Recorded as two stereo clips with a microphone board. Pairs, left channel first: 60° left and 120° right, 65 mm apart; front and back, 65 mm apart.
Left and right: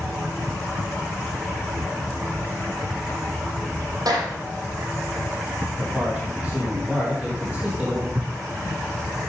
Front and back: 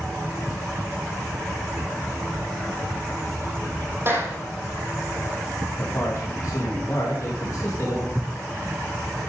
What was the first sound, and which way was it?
A clap, 130° right.